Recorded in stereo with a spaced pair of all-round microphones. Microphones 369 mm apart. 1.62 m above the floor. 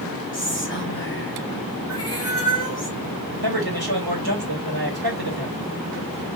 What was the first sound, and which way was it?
Whispering, 30° left (ahead or behind).